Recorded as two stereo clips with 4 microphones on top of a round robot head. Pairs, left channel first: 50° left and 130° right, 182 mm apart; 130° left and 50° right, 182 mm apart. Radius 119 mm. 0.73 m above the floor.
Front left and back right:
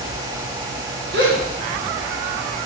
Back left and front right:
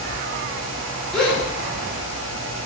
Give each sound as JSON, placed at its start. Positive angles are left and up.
{"t": 1.1, "sound": "a gasp", "azimuth_deg": -145, "distance_m": 2.0}